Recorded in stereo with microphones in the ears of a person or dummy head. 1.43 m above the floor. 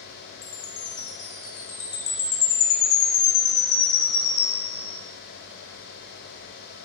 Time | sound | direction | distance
0.4 | a chime | 75° left (ahead or behind) | 0.7 m